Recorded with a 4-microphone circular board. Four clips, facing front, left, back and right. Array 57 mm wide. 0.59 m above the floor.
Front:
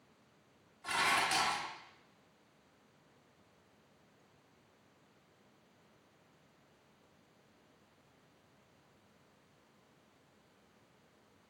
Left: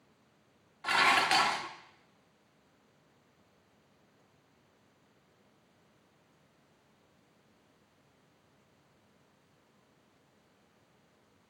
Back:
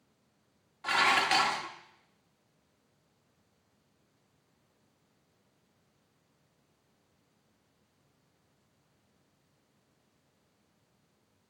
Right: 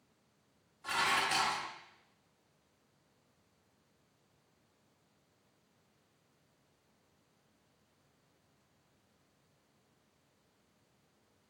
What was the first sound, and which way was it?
Dishes clattering, 125° left.